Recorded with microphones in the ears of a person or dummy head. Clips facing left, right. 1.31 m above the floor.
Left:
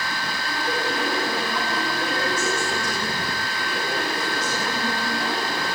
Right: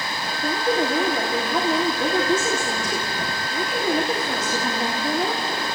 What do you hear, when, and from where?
0.4 s a woman speaking: 45° right (ahead or behind), 3.5 m